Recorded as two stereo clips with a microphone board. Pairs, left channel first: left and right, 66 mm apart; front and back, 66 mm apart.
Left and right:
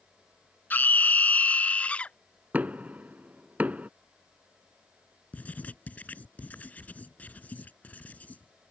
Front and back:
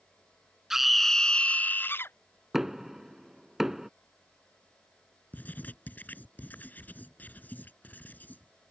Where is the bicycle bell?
No bicycle bell in this recording.